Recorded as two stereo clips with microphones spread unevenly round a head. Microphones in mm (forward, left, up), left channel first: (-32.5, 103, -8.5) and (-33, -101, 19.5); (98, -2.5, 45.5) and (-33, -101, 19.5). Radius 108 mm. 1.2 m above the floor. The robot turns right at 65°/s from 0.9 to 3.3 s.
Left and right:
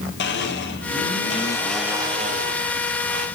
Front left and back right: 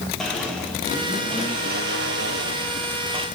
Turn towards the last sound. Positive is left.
turn(degrees=-80)